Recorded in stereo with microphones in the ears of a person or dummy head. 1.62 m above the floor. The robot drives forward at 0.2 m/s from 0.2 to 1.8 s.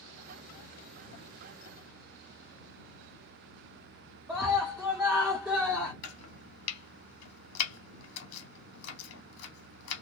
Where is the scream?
5° right (ahead or behind), 0.7 m.